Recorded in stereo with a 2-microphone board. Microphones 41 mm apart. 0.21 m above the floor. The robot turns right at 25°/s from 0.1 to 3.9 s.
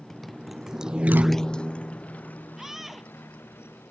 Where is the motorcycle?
5° left (ahead or behind); by 3.9 s 85° left.